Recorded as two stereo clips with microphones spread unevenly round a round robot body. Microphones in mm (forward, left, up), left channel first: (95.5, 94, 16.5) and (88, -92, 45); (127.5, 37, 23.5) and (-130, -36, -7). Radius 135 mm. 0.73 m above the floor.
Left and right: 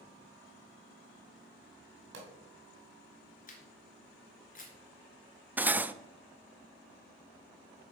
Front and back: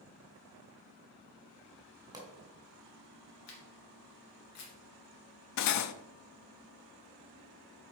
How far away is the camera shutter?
About 2.5 m.